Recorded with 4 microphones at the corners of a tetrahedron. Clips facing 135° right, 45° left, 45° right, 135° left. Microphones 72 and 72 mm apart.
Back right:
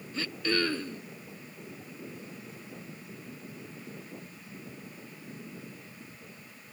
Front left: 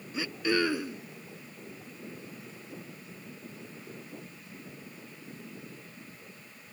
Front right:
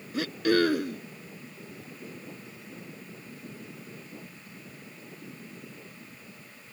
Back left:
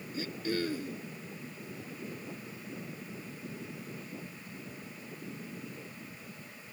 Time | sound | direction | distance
0.1 | throat clearing | 30° right | ?